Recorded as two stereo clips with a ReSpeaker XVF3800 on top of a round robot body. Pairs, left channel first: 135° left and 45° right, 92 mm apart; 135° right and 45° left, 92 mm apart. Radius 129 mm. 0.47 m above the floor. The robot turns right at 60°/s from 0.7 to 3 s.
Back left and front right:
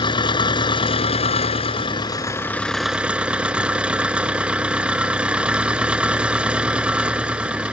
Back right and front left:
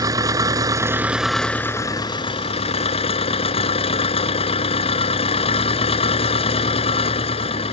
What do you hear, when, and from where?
0.0 s an engine running: 100° left; by 7.7 s 125° right